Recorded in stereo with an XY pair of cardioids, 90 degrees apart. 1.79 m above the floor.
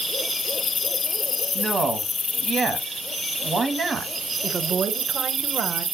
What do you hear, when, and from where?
1.6 s a man speaking: 40° right, 0.9 m
4.4 s a woman speaking: 55° right, 0.7 m